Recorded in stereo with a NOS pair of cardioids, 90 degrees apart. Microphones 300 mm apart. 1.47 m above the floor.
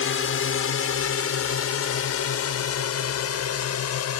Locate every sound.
0.0 s a drone: 50° left; by 4.2 s 60° left